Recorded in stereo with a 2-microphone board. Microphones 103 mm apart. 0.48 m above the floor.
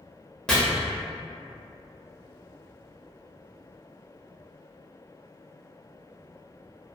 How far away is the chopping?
About 0.8 m.